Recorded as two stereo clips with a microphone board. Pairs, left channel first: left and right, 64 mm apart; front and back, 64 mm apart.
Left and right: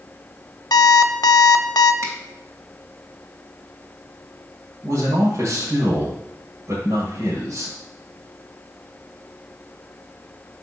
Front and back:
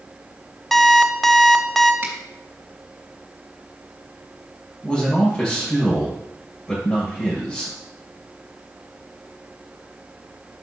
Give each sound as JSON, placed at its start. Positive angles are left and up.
{"t": 0.7, "sound": "an alarm clock", "azimuth_deg": 85, "distance_m": 0.5}
{"t": 2.0, "sound": "a finger snap", "azimuth_deg": -125, "distance_m": 3.0}
{"t": 4.8, "sound": "a man speaking", "azimuth_deg": -70, "distance_m": 2.0}